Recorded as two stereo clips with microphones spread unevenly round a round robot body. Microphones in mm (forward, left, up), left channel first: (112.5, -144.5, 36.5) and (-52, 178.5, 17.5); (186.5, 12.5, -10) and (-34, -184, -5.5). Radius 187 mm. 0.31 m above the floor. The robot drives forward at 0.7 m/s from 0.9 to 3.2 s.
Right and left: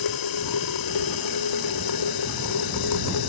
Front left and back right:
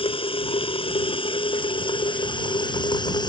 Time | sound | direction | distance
0.0 | running water | 30° right | ?